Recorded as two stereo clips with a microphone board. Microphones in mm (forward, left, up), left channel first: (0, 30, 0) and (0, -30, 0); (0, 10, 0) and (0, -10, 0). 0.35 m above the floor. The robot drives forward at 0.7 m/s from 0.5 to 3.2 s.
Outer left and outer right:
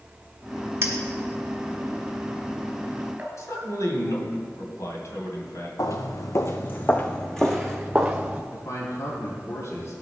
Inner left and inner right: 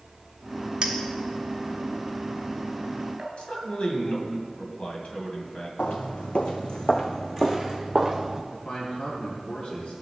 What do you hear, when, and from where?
0.8 s a clink: 40° right (ahead or behind), 1.5 m; by 3.3 s 20° right (ahead or behind), 3 m
3.4 s a man speaking: 60° left (ahead or behind), 2.5 m
5.8 s footsteps: 70° left (ahead or behind), 1.1 m; by 8.4 s 15° right (ahead or behind), 1.5 m
8.5 s a man speaking: 60° left (ahead or behind), 4 m